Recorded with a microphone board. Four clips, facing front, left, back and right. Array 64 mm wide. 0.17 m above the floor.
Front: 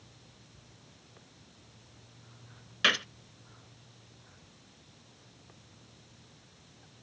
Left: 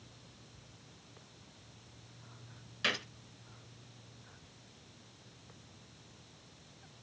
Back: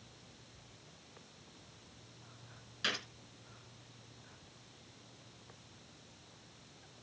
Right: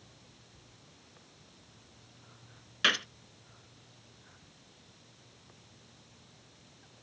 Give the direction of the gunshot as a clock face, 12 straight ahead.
1 o'clock.